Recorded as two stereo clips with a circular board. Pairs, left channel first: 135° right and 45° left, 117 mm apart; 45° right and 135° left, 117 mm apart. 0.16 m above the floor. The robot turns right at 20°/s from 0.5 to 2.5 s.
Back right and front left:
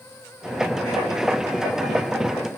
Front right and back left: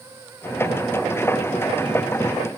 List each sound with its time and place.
Only background noise.